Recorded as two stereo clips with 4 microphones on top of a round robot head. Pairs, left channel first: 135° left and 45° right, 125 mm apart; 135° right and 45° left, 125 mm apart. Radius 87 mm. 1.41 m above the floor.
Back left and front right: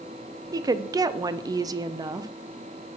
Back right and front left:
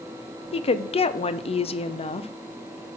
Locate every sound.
0.5 s a woman speaking: 100° right, 0.6 m